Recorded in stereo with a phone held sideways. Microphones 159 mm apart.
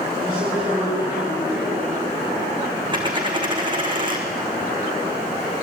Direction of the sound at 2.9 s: 30° right (ahead or behind).